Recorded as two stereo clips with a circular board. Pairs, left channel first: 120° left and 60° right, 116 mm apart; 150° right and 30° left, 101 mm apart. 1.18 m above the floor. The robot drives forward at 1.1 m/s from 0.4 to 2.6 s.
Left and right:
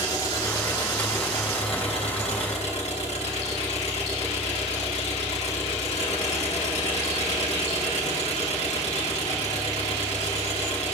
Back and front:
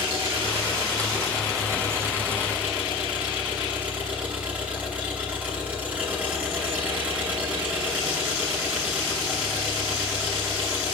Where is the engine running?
65° left, 3.5 m; by 10.9 s 105° left, 3.5 m.